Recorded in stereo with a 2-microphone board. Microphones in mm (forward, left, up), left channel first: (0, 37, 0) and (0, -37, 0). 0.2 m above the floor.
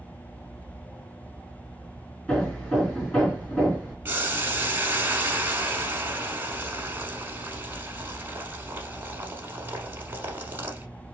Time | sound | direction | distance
2.3 | hammering | 15° left (ahead or behind) | 2.5 m
4.0 | boiling | 30° right (ahead or behind) | 0.8 m